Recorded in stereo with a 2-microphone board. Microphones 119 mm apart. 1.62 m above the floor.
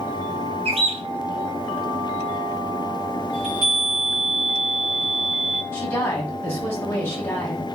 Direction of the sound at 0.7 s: 55° right (ahead or behind).